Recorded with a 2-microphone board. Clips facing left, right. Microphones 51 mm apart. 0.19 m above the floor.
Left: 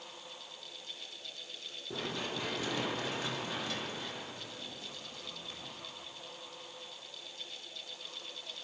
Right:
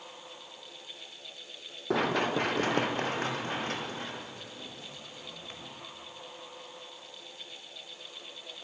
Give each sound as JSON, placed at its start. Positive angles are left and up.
{"t": 1.9, "sound": "running footsteps", "side_deg": -70, "distance_m": 1.3}